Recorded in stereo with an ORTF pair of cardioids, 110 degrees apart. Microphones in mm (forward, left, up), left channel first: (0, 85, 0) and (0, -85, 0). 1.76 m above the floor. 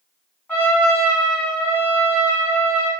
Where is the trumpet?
10° left, 1.6 m.